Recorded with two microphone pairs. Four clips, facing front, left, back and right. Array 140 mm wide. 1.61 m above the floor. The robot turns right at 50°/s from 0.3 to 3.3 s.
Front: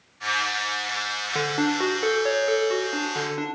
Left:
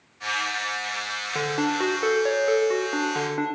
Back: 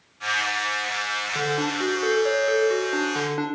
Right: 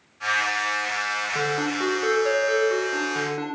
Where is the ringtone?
20° left, 0.5 m; by 3.5 s 120° left, 0.5 m.